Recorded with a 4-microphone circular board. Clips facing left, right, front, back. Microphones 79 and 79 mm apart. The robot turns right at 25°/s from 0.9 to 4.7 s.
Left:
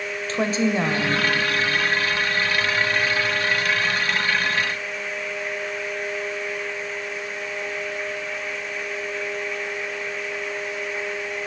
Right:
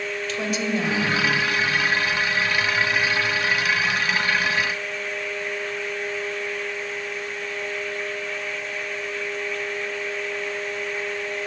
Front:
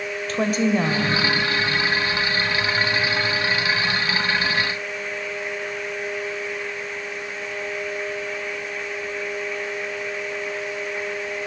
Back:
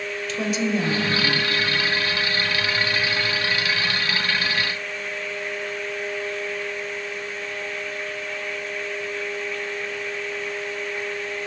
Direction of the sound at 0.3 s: 40° left.